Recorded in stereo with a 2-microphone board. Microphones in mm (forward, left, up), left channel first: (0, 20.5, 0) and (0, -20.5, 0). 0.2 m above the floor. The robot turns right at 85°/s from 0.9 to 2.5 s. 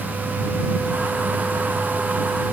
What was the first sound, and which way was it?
Only background noise.